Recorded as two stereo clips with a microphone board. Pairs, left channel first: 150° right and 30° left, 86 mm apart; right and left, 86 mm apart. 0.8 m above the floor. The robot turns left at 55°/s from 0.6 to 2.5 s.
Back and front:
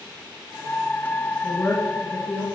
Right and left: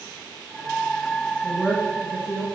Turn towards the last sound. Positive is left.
turn(degrees=130)